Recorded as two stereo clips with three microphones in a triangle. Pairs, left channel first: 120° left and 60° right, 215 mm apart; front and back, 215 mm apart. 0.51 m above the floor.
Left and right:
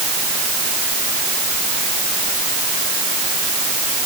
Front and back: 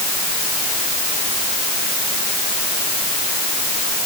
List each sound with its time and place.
Only background noise.